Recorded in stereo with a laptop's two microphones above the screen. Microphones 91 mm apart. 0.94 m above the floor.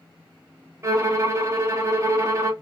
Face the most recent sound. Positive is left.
turn(degrees=-30)  # may be behind; listen again after turning